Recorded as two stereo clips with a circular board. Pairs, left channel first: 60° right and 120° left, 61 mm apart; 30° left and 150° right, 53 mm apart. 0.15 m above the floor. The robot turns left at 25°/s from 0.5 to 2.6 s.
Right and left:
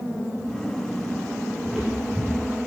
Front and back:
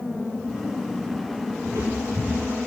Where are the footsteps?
160° right, 2.5 m; by 2.5 s straight behind, 2.5 m.